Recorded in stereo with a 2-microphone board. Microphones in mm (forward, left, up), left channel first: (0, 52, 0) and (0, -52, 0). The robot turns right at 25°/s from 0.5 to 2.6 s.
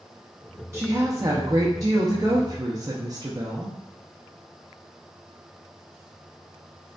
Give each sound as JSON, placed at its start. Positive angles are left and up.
{"t": 0.7, "sound": "a woman speaking", "azimuth_deg": -135, "distance_m": 0.5}